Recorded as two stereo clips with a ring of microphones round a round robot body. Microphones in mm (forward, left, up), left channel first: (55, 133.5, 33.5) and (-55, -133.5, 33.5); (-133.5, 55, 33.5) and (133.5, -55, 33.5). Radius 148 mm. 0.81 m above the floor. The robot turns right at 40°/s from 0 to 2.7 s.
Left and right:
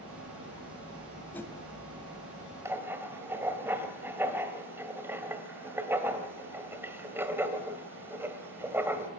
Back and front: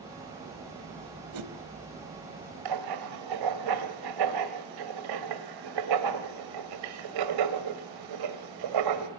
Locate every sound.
1.3 s a whoosh: 20° right, 1.1 m; by 1.5 s 10° right, 1.1 m
2.6 s writing: 30° right, 1.8 m